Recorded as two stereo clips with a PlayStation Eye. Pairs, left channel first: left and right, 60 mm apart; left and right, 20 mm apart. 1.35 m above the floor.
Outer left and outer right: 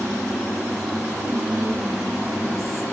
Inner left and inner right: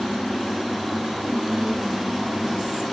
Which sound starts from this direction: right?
Whispering, at 1.2 s.